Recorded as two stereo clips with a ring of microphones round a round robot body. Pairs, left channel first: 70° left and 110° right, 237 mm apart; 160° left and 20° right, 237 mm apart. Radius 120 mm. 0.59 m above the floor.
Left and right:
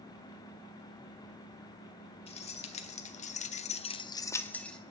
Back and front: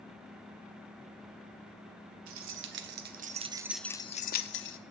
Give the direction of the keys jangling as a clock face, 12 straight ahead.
12 o'clock.